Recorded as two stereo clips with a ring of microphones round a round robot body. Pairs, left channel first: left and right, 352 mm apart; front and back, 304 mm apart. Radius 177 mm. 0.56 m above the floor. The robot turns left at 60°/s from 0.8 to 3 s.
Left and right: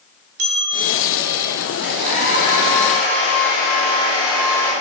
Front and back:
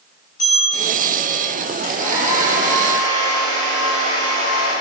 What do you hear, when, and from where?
0.4 s a bell: 70° right, 1.6 m; by 1.5 s 115° right, 1.6 m
1.8 s a hair dryer: 5° right, 2.5 m; by 4.7 s 75° right, 2.5 m